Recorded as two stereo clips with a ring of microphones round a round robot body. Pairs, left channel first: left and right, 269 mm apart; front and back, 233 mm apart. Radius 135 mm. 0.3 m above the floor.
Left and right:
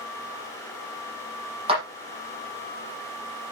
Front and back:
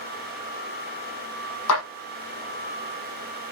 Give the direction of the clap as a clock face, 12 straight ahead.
1 o'clock.